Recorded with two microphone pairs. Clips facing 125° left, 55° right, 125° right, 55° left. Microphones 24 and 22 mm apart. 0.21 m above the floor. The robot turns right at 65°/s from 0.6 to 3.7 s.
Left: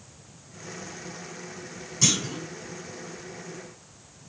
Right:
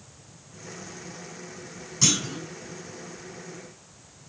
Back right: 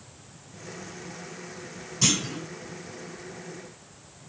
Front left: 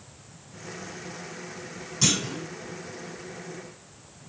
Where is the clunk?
10° left, 1.6 m; by 2.4 s 40° left, 1.6 m.